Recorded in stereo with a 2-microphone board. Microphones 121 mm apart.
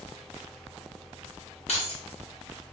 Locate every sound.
1.7 s keys jangling: 60° left (ahead or behind), 0.9 m